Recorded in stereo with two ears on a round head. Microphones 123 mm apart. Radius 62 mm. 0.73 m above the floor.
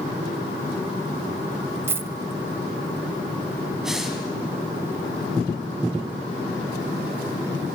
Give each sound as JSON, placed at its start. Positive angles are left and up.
{"t": 1.9, "sound": "a dropped coin", "side_deg": -15, "distance_m": 0.5}
{"t": 3.8, "sound": "breathing", "side_deg": -5, "distance_m": 3.5}